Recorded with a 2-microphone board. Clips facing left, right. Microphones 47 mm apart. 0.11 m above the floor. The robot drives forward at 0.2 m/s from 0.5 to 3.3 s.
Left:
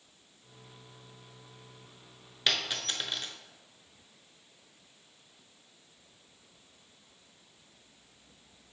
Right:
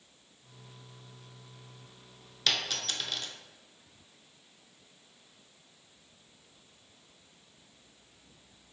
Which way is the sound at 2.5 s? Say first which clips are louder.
Left 1 dB; 20° left (ahead or behind).